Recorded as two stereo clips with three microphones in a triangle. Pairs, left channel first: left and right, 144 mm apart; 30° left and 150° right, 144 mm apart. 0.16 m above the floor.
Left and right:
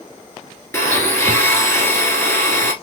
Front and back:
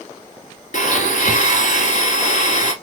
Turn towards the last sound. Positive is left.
turn(degrees=20)